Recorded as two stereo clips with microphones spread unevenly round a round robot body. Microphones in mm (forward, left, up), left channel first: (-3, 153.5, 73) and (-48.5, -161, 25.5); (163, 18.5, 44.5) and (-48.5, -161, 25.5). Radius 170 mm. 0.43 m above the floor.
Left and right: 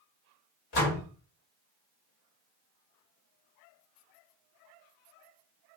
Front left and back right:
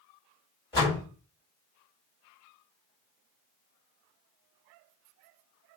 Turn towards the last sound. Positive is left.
turn(degrees=115)